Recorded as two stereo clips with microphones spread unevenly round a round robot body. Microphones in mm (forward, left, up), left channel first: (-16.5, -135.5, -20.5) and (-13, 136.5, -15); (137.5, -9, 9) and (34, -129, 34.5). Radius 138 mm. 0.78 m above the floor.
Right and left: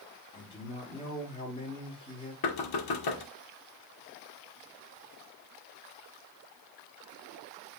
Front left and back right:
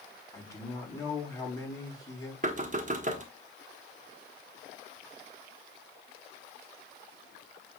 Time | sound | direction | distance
0.3 | a man speaking | 20° right | 5.5 m
2.4 | knocking | 90° right | 1.4 m